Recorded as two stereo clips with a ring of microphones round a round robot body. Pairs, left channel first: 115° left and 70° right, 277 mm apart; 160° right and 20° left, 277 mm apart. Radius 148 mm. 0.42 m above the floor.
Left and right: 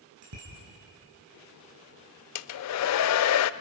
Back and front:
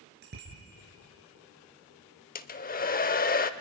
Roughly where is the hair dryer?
Behind left.